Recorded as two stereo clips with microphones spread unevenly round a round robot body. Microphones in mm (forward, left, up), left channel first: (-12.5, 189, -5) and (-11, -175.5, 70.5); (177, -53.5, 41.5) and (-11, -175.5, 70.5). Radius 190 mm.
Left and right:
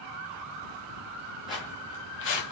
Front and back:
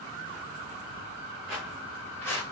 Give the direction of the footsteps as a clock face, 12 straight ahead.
6 o'clock.